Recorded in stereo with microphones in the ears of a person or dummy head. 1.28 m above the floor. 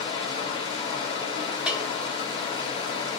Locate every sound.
0.0 s running water: 25° left (ahead or behind), 1.3 m
1.7 s a bell: 5° right (ahead or behind), 0.7 m